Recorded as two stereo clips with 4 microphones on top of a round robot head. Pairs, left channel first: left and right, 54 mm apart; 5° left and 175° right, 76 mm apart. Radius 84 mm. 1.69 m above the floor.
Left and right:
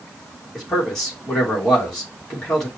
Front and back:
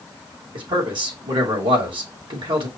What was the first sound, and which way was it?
A man speaking, 170° left.